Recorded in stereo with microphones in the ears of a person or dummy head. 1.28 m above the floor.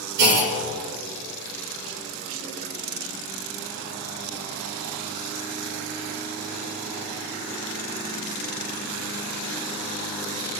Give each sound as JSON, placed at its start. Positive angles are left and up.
{"t": 0.2, "sound": "a clunk", "side_deg": -65, "distance_m": 2.5}